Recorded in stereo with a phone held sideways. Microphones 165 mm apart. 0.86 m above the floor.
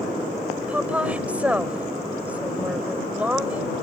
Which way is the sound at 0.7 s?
10° right (ahead or behind).